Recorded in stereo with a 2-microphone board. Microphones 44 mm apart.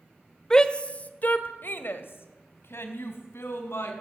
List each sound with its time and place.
0.5 s a shout: 15° left (ahead or behind), 1.6 m; by 3.9 s 75° left (ahead or behind), 4.5 m